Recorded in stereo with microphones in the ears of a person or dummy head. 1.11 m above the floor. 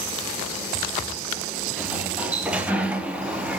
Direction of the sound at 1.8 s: 5° right (ahead or behind).